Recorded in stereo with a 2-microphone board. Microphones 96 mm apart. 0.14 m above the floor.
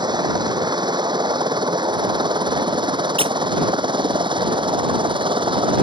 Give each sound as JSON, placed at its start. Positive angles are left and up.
{"t": 0.0, "sound": "a helicopter", "side_deg": -50}
{"t": 3.2, "sound": "a squeak", "side_deg": -70}